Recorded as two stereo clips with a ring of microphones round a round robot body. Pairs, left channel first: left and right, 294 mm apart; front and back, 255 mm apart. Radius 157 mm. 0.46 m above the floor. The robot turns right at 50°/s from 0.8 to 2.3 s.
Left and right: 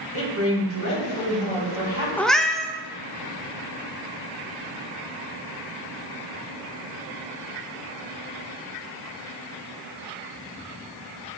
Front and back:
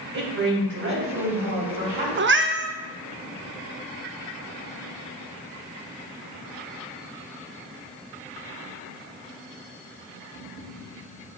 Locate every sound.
0.1 s a woman speaking: 135° left, 3 m; by 2.1 s 160° right, 3 m
2.2 s a cat meowing: 170° left, 0.5 m; by 2.7 s straight behind, 0.5 m